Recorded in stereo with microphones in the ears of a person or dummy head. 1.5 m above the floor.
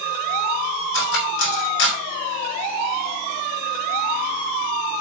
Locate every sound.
0.9 s cutlery clinking: 70° left (ahead or behind), 2.5 m